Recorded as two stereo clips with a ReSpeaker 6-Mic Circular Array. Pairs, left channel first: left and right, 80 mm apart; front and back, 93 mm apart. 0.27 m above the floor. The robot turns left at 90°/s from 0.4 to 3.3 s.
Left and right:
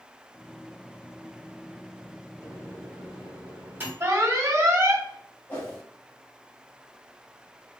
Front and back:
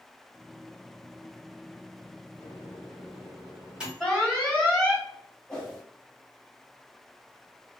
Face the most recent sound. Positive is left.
turn(degrees=80)